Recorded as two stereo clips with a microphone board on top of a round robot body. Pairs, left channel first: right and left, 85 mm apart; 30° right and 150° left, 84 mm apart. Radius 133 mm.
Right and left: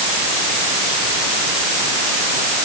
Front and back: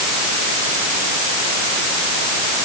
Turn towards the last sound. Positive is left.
No sound to turn to.